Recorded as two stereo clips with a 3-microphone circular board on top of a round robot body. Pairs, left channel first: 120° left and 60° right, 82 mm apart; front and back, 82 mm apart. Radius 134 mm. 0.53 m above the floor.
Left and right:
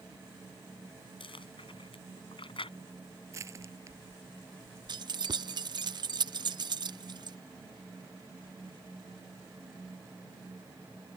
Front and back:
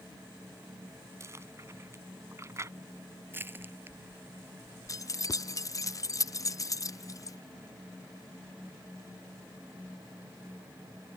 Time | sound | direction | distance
1.2 | chewing | 120° left | ?
3.3 | crushing | 115° right | ?
4.9 | keys jangling | 45° right | ?